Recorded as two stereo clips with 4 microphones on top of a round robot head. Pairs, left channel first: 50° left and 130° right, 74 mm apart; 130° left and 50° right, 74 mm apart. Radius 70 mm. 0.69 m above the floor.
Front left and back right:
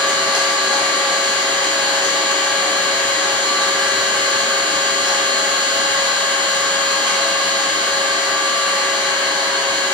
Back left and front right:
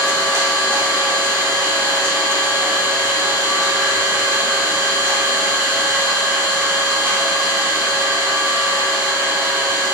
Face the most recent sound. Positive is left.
turn(degrees=-105)